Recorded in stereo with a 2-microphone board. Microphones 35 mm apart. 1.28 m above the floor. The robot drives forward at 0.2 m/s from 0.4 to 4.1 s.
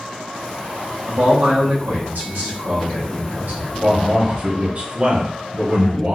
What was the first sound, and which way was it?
A man speaking, 65° right (ahead or behind).